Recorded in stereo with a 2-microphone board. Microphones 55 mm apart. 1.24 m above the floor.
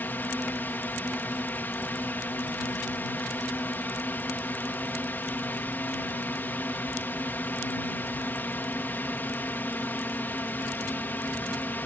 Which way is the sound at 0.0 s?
40° left (ahead or behind).